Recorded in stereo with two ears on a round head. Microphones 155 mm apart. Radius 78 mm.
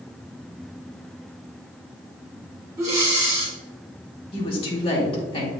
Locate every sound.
2.8 s breathing: 20° right (ahead or behind), 2 m
4.3 s a woman speaking: 30° left (ahead or behind), 1.7 m